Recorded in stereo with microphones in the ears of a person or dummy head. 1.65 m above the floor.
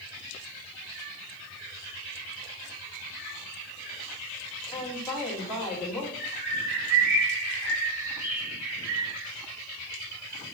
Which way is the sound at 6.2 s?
50° right (ahead or behind).